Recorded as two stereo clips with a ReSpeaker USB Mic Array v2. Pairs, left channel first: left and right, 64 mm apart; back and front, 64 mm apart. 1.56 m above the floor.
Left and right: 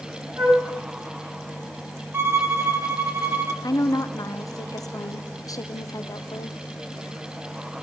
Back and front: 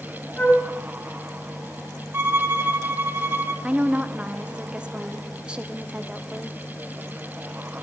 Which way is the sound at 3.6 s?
75° left.